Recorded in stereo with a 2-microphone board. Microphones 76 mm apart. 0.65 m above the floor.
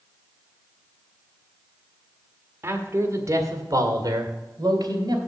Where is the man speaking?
30° right (ahead or behind), 1.5 m; by 5.2 s 65° right (ahead or behind), 2.5 m.